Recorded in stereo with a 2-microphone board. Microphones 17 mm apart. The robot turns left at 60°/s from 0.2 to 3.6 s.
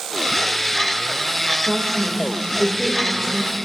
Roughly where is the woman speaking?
Right.